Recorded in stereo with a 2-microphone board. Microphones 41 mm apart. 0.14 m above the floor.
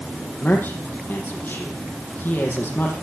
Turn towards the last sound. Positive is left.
turn(degrees=45)  # may be behind; listen again after turning